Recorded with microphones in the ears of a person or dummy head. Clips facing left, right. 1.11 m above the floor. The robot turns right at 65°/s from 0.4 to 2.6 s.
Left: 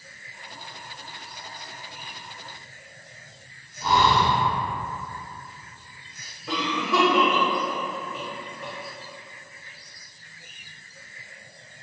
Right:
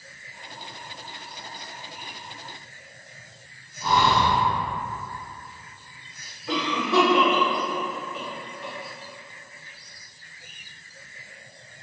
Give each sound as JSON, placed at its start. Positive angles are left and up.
{"t": 3.8, "sound": "breathing", "side_deg": 20, "distance_m": 1.0}
{"t": 6.5, "sound": "a cough", "side_deg": 75, "distance_m": 1.3}